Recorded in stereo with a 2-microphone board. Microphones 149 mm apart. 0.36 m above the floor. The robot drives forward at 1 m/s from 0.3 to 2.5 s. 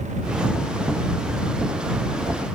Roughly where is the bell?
I don't hear a bell.